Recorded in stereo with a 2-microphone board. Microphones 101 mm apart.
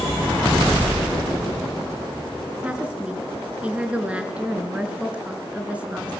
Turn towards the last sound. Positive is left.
turn(degrees=-10)  # may be behind; listen again after turning